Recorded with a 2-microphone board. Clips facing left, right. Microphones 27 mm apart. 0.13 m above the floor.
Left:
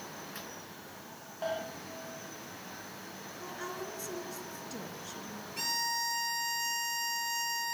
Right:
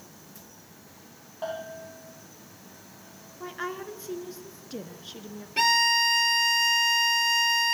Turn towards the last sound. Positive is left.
turn(degrees=-55)  # may be behind; listen again after turning